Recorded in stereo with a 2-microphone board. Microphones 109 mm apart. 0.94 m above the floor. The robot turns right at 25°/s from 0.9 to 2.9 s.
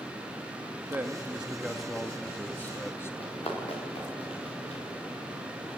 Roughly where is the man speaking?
Ahead right.